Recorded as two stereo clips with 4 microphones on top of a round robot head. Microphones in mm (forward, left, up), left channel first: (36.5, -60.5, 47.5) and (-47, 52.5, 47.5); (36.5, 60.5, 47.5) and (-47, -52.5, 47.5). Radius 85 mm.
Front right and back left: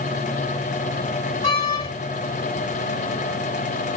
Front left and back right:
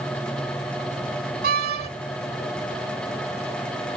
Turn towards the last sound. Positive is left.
turn(degrees=-115)